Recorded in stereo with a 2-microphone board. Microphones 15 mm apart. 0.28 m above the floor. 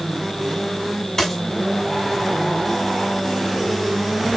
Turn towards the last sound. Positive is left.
turn(degrees=15)  # may be behind; listen again after turning